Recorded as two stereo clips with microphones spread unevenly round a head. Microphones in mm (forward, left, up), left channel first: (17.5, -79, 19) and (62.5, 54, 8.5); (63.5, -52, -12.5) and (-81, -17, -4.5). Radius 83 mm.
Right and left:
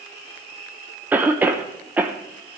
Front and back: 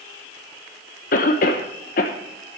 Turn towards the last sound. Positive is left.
turn(degrees=0)